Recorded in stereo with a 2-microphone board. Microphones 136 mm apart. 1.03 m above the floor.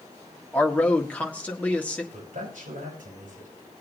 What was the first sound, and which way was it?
A man speaking, 10° left (ahead or behind).